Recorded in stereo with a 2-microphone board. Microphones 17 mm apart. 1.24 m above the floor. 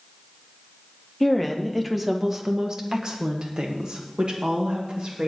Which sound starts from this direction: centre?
A woman speaking, at 1.2 s.